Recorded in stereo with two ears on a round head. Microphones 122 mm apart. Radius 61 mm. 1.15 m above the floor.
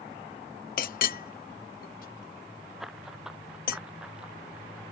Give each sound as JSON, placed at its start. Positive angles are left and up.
{"t": 0.8, "sound": "a clink", "side_deg": 70}
{"t": 2.8, "sound": "running footsteps", "side_deg": -5}